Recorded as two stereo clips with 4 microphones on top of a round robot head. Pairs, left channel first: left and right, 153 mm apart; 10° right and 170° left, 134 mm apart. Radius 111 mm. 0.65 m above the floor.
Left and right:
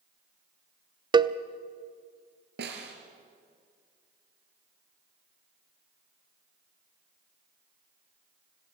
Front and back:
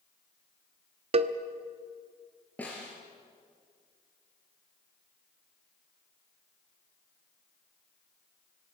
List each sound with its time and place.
1.1 s a cowbell: 150° right, 0.7 m
2.6 s a snare drum: 90° right, 3 m